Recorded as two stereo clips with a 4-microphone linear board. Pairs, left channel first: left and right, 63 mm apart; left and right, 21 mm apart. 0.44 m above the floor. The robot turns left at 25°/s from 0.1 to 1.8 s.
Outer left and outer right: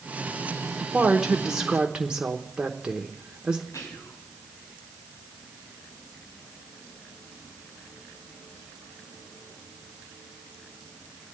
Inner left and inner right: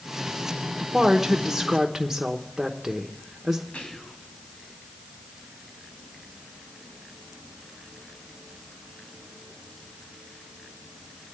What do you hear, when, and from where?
0.8 s a woman speaking: 10° right (ahead or behind), 1.0 m; by 3.6 s 15° right (ahead or behind), 1.0 m
3.7 s whispering: 60° left (ahead or behind), 3 m